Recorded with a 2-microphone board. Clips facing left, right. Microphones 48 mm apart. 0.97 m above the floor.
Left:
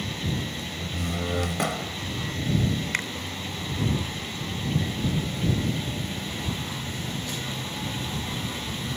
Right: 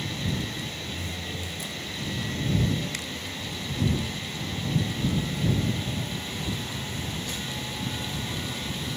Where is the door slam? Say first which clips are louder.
Left 4 dB; 85° left.